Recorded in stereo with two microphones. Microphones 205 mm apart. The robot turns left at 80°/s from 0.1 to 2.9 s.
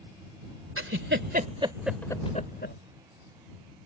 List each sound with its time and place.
0.8 s a giggle: 80° right; by 2.8 s 65° left (ahead or behind)